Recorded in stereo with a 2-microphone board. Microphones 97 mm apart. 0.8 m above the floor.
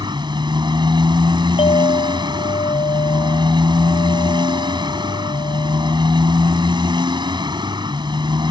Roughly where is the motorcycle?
Right.